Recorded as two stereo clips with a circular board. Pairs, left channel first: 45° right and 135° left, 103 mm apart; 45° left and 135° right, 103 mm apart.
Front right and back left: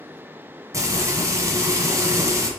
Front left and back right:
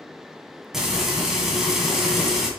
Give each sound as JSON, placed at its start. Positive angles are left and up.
{"t": 0.7, "sound": "frying", "azimuth_deg": 145, "distance_m": 1.5}